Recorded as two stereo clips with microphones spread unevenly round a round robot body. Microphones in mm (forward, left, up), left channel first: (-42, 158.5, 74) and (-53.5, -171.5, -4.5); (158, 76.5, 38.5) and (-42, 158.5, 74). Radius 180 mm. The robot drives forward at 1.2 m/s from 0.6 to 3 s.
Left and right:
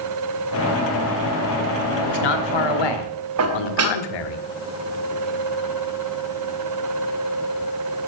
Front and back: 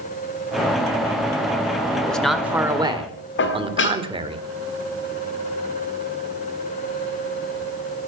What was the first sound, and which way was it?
A man speaking, 60° left.